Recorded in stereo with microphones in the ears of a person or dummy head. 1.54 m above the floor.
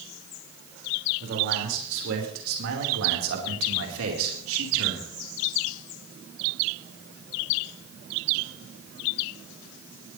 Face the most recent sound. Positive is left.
turn(degrees=-80)